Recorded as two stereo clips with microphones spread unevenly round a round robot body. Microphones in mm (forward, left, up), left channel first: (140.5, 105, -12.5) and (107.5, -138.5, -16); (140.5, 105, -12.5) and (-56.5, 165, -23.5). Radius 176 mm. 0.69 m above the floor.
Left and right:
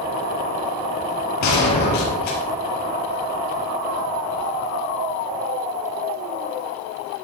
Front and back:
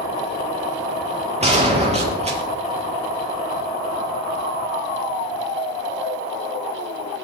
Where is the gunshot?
105° left, 4.5 m.